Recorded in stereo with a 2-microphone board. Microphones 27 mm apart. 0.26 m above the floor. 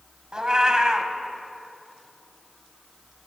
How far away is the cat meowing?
About 0.6 m.